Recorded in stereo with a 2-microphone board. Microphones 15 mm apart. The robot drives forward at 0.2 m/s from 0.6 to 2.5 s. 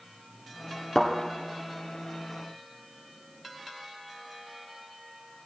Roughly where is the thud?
Left.